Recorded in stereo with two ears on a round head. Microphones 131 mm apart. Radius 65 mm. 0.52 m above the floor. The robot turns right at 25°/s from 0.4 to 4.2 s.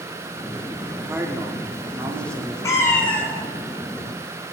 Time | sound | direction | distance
0.9 | a man speaking | 15° right (ahead or behind) | 0.6 m
2.6 | a cat meowing | 25° left (ahead or behind) | 1.2 m